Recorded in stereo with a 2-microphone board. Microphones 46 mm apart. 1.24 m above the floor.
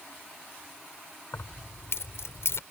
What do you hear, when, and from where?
1.3 s keys jangling: 80° left